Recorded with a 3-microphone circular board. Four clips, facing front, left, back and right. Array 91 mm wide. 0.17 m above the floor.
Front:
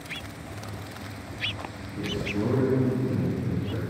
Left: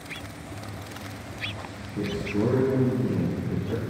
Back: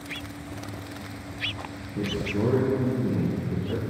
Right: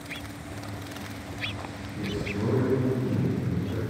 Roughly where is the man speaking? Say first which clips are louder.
Left 5 dB, back 2 dB; behind left.